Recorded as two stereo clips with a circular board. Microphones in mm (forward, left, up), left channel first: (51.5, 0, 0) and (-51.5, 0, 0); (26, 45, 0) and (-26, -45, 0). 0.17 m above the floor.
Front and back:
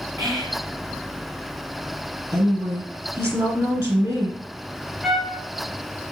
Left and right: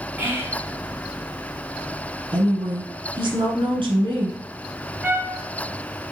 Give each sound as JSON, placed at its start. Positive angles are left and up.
{"t": 0.2, "sound": "whispering", "azimuth_deg": -175, "distance_m": 1.8}
{"t": 2.3, "sound": "a woman speaking", "azimuth_deg": -135, "distance_m": 1.7}
{"t": 5.0, "sound": "a trumpet", "azimuth_deg": -95, "distance_m": 0.6}